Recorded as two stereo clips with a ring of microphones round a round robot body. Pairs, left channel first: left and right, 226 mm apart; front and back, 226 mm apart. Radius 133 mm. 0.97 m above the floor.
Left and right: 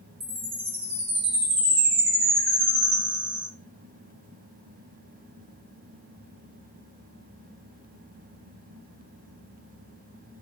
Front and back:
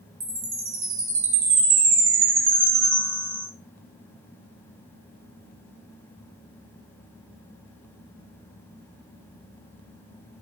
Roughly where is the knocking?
I don't hear knocking.